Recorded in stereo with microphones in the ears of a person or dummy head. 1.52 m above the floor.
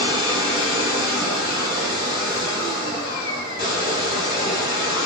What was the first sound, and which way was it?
A machine running, 65° left (ahead or behind).